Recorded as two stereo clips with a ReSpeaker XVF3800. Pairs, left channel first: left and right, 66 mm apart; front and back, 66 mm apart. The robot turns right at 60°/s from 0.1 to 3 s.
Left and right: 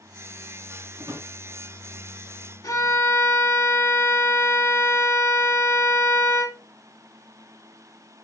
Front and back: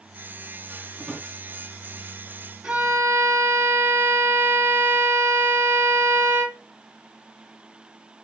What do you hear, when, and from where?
1.0 s a drawer: 95° right, 3.5 m; by 1.3 s 75° right, 3.5 m
2.6 s a violin: 105° left, 2 m; by 6.6 s 125° left, 2 m